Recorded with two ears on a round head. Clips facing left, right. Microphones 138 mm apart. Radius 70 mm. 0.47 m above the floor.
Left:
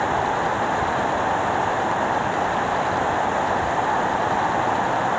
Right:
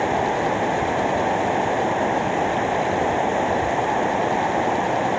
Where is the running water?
25° right (ahead or behind).